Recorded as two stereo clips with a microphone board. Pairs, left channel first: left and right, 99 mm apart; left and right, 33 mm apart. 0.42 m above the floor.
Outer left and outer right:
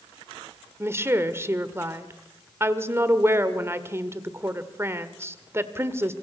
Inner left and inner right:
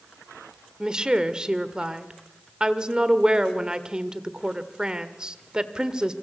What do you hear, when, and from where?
0.8 s a woman speaking: 25° right (ahead or behind), 1.6 m